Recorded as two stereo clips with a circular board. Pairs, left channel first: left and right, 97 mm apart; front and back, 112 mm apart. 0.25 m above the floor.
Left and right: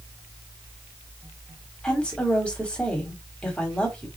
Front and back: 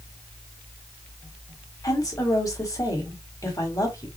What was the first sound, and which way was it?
A woman speaking, 20° left.